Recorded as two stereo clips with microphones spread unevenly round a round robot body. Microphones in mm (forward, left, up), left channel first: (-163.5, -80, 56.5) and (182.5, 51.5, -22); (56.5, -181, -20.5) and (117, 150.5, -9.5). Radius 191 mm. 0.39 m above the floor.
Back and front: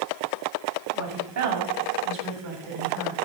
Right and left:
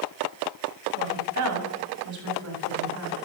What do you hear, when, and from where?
1.0 s a woman speaking: 55° left, 2.5 m; by 3.1 s 45° left, 4.5 m